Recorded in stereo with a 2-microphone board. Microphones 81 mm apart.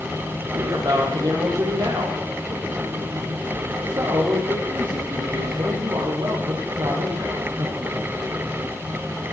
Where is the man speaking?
65° right (ahead or behind), 8 m.